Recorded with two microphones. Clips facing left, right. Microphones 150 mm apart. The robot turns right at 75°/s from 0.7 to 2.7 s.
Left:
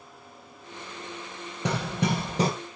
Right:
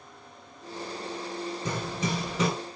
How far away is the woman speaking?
No woman speaking in this recording.